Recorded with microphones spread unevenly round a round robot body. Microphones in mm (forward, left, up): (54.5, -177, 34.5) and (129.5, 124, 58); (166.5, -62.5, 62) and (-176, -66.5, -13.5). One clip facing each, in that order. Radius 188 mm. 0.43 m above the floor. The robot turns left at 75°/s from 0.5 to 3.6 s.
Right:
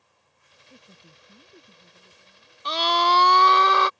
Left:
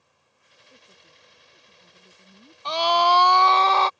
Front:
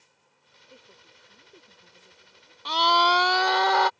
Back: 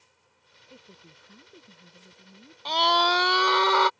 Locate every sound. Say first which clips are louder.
0.7 s a woman speaking: right 4 dB, back 3 dB; 105° right; by 3.1 s 75° left
2.6 s a scream: left 3 dB, even; 75° right; by 3.9 s 145° right